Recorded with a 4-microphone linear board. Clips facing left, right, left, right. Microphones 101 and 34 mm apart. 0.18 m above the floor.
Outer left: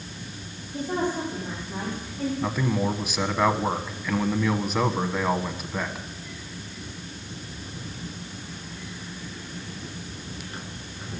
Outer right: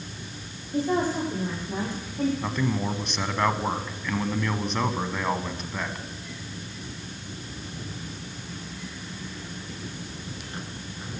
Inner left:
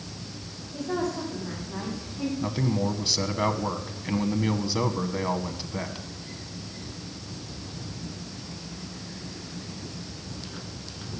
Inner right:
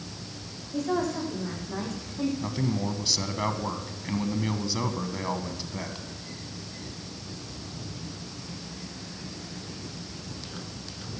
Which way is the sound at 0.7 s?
80° right.